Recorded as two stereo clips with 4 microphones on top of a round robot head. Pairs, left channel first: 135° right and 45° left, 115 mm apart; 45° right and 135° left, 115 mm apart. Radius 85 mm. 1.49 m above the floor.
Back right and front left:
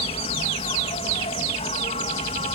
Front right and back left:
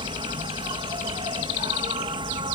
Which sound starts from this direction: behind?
An insect, at 0.0 s.